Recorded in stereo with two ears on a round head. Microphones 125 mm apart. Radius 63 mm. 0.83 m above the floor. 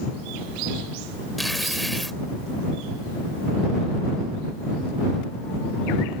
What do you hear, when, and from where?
1.4 s tearing paper: centre (ahead or behind)